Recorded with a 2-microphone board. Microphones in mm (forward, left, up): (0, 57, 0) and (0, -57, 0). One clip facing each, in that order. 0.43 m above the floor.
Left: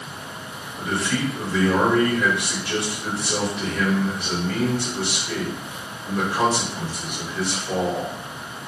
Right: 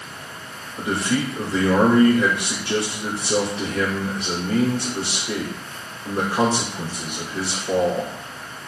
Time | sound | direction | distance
0.8 | a man speaking | 30° right (ahead or behind) | 6 m